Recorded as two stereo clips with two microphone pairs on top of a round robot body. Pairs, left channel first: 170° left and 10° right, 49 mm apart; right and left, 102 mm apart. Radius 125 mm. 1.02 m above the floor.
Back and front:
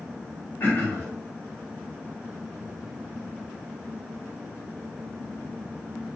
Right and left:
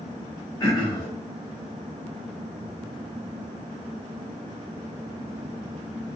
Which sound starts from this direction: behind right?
Throat clearing, at 0.6 s.